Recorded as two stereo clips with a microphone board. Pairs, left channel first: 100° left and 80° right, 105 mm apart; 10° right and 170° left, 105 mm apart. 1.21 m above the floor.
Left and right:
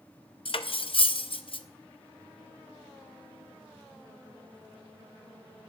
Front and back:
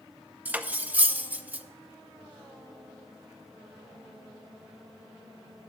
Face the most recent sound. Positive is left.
turn(degrees=100)